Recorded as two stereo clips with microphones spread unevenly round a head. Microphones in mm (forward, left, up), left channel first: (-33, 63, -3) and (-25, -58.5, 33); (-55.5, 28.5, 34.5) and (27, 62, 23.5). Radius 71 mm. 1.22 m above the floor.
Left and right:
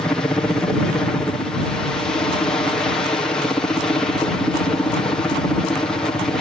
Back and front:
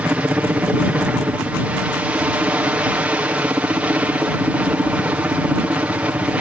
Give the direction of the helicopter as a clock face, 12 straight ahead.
10 o'clock.